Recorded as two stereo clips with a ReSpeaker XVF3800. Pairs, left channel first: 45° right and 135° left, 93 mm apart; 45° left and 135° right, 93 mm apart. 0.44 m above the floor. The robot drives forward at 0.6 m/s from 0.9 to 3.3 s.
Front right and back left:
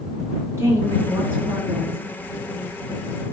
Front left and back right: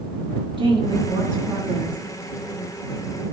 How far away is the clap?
No clap in this recording.